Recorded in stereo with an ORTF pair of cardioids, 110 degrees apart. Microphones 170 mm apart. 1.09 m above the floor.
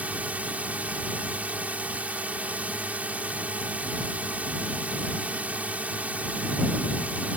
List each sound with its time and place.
0.0 s a drone: 10° right